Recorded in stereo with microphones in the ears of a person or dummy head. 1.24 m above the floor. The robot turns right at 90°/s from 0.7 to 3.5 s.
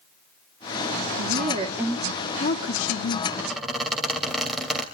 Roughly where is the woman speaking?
Right.